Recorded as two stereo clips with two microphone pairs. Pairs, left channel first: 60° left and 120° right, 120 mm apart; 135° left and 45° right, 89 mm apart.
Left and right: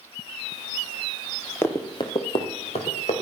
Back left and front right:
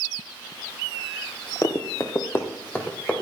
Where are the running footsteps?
120° left, 1.6 m; by 3.2 s 60° left, 3 m.